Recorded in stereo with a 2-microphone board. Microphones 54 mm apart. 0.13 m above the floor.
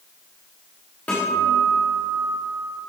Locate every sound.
1.1 s a guitar: 25° left (ahead or behind), 7 m